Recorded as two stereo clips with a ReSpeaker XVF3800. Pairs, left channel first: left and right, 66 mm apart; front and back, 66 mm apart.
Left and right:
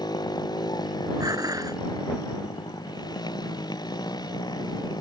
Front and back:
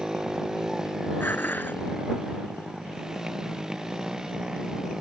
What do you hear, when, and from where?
0.0 s a motorcycle: 100° left
1.2 s dishes clattering: 60° right